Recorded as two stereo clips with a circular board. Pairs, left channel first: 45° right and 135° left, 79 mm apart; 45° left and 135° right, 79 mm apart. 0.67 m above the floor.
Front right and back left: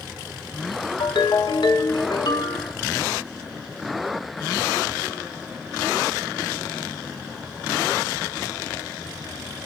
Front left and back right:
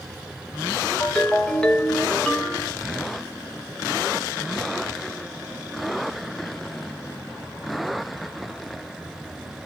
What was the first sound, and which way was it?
A ringtone, 30° right.